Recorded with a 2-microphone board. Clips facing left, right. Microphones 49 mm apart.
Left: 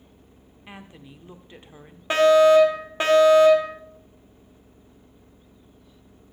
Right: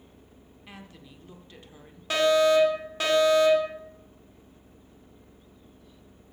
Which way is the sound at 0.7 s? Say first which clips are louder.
Left 4 dB; 25° left (ahead or behind).